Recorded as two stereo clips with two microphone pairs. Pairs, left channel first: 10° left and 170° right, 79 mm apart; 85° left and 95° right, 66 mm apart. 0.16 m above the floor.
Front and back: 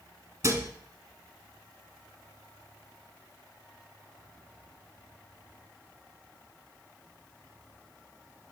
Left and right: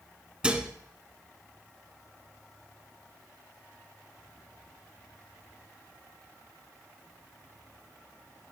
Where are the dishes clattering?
160° right, 0.9 m.